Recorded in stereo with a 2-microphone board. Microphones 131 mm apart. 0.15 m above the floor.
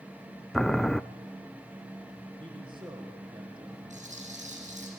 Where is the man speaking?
40° right (ahead or behind), 6.5 m.